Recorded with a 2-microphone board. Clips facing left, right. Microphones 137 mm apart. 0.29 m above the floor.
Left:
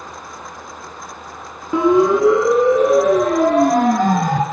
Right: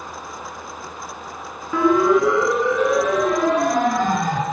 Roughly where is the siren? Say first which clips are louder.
Left 3 dB; left.